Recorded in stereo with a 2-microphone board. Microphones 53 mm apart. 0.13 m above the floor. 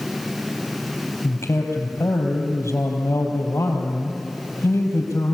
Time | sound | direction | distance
1.2 | a man speaking | 60° left (ahead or behind) | 4 m